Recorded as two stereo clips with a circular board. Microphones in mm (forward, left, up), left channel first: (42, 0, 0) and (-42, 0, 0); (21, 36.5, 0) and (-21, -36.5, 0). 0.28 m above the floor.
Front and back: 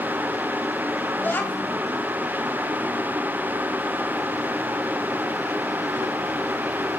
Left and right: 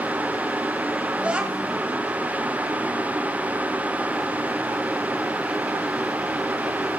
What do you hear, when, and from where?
1.2 s a child speaking: 50° right, 0.8 m